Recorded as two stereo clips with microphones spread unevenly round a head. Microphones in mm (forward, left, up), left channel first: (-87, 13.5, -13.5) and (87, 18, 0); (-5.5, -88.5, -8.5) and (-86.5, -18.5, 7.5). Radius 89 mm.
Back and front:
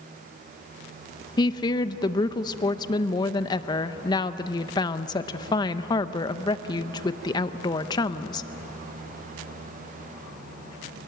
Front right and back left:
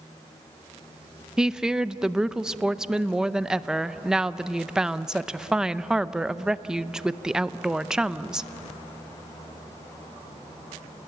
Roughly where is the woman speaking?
Behind right.